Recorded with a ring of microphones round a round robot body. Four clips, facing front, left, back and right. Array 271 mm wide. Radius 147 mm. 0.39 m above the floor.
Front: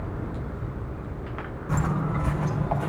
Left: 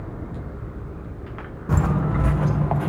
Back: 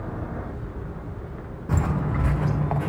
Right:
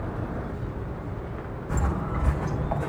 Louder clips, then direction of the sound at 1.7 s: Left 7 dB, back 1 dB; 110° left.